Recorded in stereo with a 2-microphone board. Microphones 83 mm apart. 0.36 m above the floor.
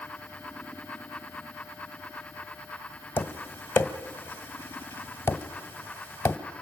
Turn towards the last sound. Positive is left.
turn(degrees=25)  # may be behind; listen again after turning